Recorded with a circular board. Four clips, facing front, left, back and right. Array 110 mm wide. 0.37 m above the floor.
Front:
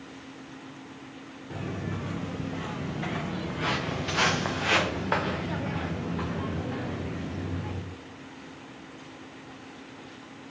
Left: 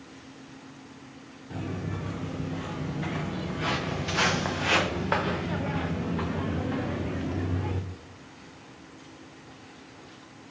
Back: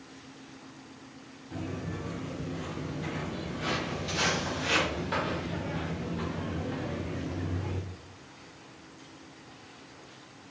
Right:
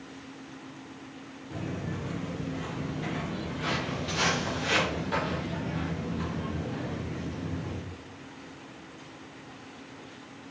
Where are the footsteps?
15° left, 3.5 m; by 7.8 s 90° left, 1.7 m.